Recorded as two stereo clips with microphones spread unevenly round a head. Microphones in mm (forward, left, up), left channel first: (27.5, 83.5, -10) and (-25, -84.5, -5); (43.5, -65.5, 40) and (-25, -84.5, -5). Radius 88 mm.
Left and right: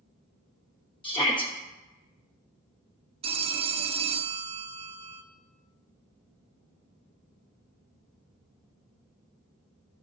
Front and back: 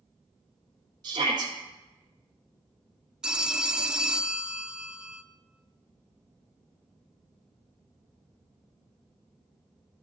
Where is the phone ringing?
60° right, 0.6 m.